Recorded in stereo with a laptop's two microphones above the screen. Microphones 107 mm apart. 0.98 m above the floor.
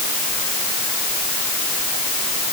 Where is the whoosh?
I don't hear a whoosh.